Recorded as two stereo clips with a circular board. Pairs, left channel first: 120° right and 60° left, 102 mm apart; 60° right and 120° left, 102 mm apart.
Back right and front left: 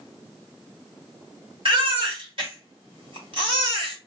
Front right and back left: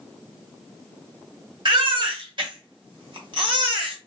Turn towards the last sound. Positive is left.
turn(degrees=85)